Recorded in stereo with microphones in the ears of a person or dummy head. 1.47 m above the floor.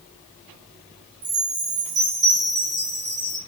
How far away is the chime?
About 1.1 m.